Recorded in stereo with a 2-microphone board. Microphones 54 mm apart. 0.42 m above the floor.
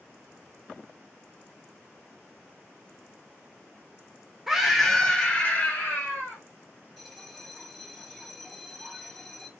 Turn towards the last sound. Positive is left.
turn(degrees=0)  # may be behind; listen again after turning